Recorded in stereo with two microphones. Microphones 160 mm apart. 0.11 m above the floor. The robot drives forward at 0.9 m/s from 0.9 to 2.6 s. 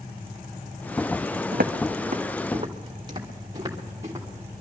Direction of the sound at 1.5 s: 85° right.